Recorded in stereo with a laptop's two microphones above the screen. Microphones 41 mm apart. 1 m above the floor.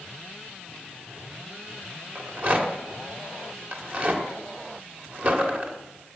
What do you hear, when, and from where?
2.1 s a rattle: 40° right (ahead or behind), 1.8 m